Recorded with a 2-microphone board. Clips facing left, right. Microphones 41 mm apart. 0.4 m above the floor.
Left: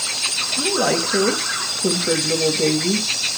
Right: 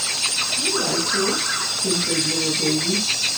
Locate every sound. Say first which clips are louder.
0.6 s a woman speaking: left 7 dB; 60° left (ahead or behind), 1.6 m